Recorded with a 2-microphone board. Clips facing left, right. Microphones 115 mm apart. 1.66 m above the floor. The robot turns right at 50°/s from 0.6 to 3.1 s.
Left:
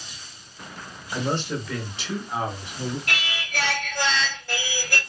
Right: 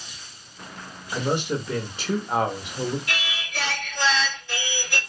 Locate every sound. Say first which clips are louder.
1.1 s a man speaking: right 2 dB; straight behind, 0.5 m; by 3.0 s 90° right, 0.5 m
3.1 s singing: left 1 dB; 60° left (ahead or behind), 1.0 m